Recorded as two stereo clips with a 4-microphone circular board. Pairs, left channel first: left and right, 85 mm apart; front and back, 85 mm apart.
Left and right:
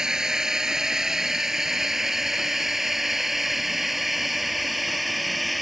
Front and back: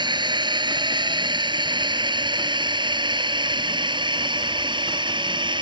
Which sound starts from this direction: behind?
A drone, at 0.0 s.